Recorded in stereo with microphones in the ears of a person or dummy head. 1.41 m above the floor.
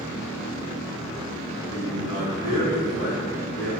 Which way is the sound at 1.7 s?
85° left.